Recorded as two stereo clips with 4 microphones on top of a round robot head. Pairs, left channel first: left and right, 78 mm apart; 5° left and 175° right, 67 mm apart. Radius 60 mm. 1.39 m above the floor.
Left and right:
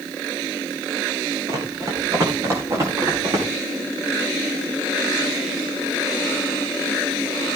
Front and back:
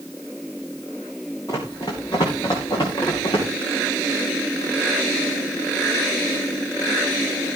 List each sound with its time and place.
1.5 s running footsteps: 50° right, 3.5 m; by 3.5 s 40° right, 6 m